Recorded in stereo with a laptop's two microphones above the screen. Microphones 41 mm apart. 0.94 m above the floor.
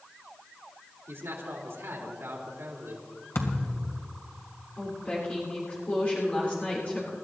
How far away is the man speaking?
About 3 m.